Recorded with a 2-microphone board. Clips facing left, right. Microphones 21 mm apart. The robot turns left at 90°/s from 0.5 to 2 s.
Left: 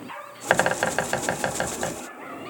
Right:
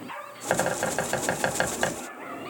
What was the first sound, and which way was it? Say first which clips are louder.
A bird: left 4 dB; 55° left (ahead or behind).